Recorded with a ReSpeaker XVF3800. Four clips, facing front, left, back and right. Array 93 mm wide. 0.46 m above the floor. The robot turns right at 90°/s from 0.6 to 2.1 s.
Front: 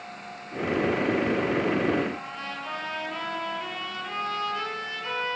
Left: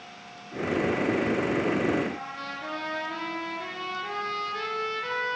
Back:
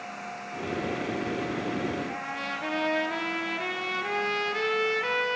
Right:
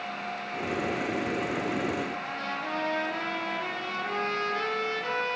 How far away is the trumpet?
About 4.5 m.